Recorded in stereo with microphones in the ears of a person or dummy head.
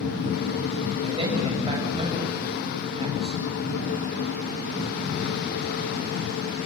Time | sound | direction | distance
1.0 | a man speaking | 35° right (ahead or behind) | 7.5 m